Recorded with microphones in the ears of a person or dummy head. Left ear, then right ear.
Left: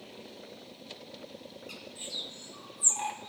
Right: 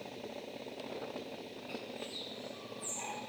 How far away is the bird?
About 0.6 m.